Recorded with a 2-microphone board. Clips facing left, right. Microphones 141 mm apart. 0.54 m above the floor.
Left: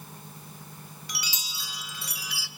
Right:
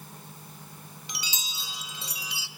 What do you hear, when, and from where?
1.1 s a chime: 20° right (ahead or behind), 1.2 m